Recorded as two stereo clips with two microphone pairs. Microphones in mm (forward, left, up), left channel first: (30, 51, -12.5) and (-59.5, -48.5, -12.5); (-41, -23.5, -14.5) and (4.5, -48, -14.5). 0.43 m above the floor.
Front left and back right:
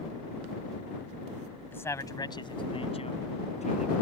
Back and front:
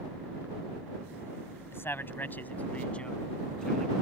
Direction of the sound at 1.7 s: 120° left.